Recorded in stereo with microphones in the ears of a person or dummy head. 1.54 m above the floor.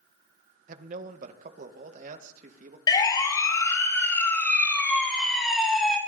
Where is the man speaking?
45° right (ahead or behind), 1.7 m.